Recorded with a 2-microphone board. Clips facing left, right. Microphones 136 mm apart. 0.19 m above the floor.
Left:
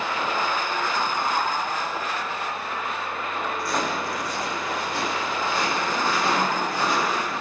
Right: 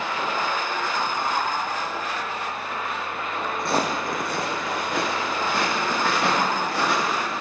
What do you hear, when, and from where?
3.6 s footsteps: 20° right (ahead or behind), 0.6 m; by 7.3 s 80° right, 2.5 m